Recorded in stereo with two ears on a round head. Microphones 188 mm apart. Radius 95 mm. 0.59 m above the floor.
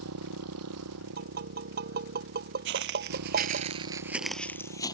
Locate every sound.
0.0 s a motorcycle: 80° right; by 5.0 s 85° right
1.2 s tapping: 45° right (ahead or behind)
2.6 s footsteps: 60° right (ahead or behind); by 5.0 s 20° left (ahead or behind)